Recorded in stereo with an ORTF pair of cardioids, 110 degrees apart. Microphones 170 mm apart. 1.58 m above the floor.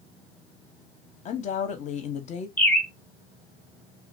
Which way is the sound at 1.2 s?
45° left.